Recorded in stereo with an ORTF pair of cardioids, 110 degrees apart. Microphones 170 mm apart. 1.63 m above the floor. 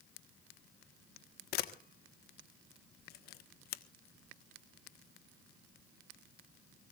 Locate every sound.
1.5 s a camera shutter: 70° left, 1.5 m